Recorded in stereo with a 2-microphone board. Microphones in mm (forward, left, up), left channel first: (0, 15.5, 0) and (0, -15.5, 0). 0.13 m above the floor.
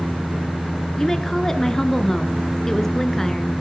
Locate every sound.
1.0 s a woman speaking: 15° left (ahead or behind), 1.6 m